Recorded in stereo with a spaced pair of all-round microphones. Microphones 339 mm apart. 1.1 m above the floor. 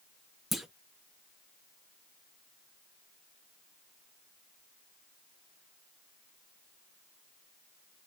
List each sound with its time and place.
0.5 s a clunk: centre (ahead or behind), 0.6 m